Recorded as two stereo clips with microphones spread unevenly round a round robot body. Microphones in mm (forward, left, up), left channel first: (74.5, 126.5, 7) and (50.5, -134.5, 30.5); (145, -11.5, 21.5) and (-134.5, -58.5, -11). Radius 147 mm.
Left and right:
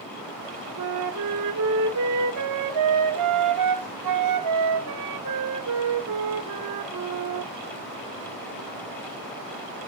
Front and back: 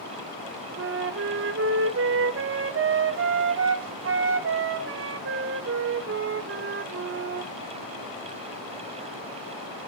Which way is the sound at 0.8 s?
120° right.